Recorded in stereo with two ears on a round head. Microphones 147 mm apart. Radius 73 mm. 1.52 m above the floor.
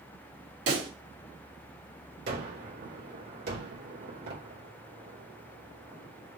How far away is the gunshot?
About 2.5 m.